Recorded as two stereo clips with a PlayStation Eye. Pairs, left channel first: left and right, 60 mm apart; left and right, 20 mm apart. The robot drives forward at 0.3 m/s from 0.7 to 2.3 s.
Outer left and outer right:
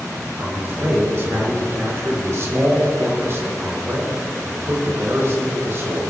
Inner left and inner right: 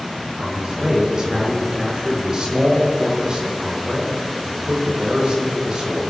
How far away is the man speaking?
About 4 m.